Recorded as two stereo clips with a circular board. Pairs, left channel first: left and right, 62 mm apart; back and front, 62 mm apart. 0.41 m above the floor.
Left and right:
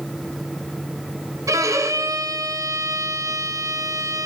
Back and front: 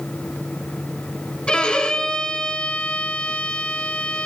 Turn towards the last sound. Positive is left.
turn(degrees=-105)